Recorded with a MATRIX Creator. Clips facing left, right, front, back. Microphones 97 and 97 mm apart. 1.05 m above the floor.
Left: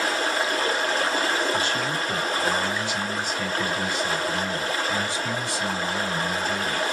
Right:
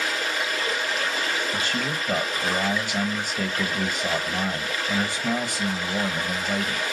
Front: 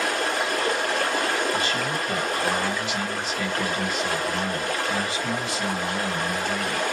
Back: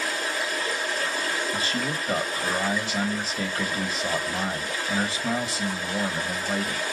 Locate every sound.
0.0 s running water: 30° left, 0.9 m
1.5 s a man speaking: 120° right, 0.9 m